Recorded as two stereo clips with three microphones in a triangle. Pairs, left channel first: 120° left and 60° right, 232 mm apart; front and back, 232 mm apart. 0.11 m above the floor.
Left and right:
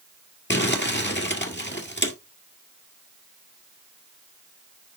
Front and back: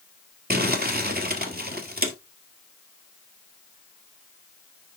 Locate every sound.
0.5 s crumpling: 145° left, 1.7 m